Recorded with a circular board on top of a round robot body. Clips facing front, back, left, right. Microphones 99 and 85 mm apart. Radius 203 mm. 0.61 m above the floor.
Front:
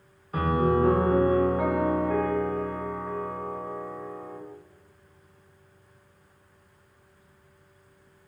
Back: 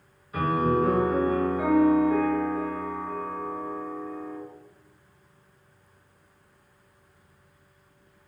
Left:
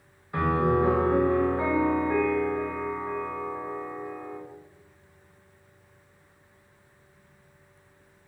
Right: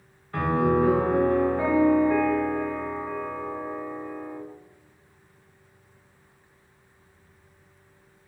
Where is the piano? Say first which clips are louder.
Even, right 1 dB; 15° left, 1.1 m.